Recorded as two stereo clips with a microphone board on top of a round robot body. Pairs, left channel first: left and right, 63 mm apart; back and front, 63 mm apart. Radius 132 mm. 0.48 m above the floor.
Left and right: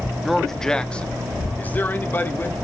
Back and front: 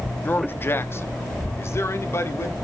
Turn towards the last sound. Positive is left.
turn(degrees=140)